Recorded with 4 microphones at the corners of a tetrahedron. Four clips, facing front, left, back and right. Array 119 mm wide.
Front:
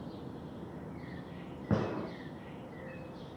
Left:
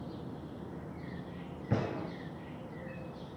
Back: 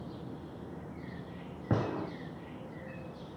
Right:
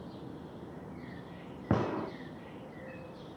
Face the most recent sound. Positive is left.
turn(degrees=-100)